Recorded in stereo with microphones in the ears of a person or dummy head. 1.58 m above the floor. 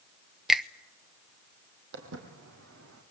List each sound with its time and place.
0.5 s a finger snap: centre (ahead or behind), 0.6 m
1.9 s footsteps: 65° right (ahead or behind), 3.5 m; by 3.0 s 75° right (ahead or behind), 5 m